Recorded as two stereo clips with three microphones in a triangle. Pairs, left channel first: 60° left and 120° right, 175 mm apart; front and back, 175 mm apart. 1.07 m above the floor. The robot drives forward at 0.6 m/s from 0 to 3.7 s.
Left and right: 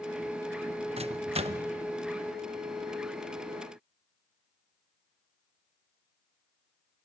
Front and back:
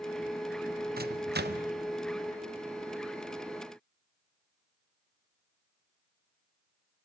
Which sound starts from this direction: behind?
A microwave, at 1.0 s.